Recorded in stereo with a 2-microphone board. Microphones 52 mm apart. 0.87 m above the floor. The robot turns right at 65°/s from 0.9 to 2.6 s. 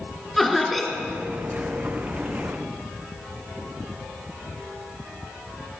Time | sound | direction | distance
0.4 | laughter | 5° right (ahead or behind) | 2 m